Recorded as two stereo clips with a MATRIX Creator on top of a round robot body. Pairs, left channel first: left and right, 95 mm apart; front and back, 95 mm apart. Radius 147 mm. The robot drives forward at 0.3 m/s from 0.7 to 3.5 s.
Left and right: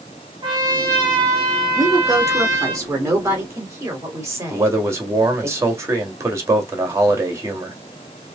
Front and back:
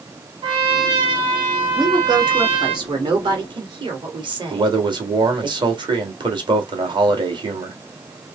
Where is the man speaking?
150° right, 1.8 m.